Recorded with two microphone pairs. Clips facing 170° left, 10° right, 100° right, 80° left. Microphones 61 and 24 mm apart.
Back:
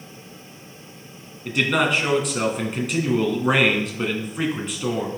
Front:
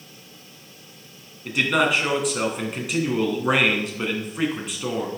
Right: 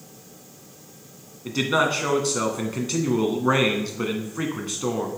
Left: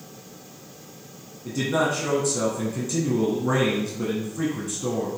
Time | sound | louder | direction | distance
1.4 | a man speaking | even, right 2 dB | 95° right | 1.8 m